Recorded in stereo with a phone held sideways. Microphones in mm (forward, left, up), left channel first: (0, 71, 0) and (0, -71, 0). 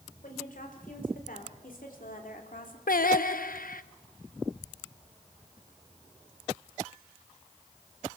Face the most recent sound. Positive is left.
turn(degrees=85)